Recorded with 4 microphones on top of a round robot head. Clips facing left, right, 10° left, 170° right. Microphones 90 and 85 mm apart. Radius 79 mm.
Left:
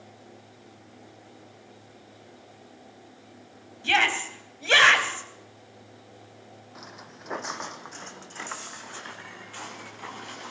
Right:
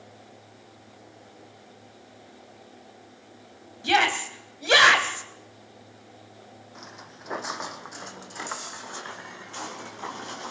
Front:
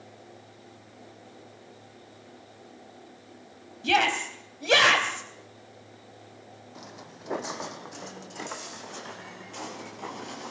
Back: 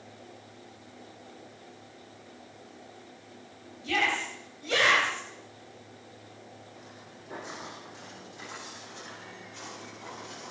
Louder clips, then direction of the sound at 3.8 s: Right 2 dB, front 5 dB; 15° right.